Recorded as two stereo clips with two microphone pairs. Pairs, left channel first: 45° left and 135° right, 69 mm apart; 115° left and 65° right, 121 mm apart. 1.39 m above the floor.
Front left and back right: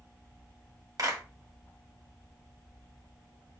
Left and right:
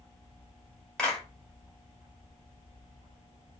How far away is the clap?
About 2 m.